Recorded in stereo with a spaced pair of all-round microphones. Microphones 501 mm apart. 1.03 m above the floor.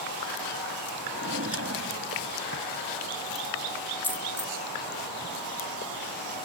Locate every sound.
1.1 s a drawer: 30° right (ahead or behind)
4.0 s a dropped coin: 5° left (ahead or behind)